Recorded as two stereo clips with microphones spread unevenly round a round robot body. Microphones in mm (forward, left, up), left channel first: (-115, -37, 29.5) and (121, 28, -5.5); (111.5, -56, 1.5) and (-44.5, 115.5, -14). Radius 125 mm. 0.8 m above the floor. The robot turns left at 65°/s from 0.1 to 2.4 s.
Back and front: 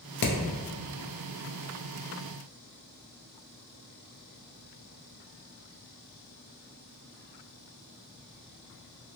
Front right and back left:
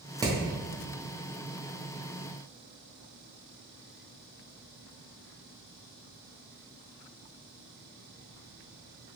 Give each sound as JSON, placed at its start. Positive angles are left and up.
{"t": 0.2, "sound": "hammering", "azimuth_deg": -175, "distance_m": 0.6}